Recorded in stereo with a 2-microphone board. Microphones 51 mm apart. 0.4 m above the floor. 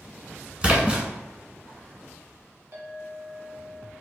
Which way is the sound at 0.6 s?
25° right (ahead or behind).